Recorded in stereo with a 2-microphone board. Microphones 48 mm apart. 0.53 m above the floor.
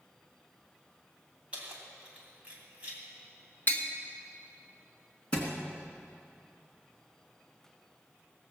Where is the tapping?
35° left (ahead or behind), 1.3 m.